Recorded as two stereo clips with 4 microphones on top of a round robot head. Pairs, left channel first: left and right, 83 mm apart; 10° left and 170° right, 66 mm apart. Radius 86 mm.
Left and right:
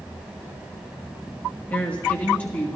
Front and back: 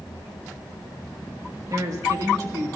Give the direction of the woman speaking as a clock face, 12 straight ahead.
7 o'clock.